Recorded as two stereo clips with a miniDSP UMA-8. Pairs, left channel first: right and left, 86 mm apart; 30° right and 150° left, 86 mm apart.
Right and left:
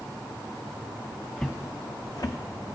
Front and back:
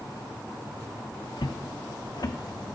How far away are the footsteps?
About 1.0 m.